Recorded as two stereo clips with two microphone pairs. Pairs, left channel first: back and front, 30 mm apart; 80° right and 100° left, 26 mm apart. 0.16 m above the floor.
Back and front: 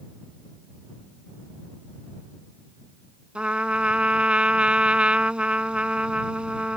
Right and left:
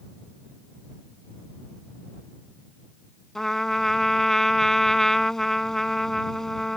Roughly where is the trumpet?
Ahead.